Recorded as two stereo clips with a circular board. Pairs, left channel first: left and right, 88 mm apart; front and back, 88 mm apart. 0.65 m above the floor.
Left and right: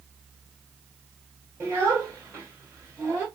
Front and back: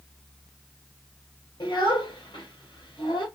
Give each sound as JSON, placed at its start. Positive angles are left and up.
{"t": 1.6, "sound": "a child speaking", "azimuth_deg": -30, "distance_m": 1.7}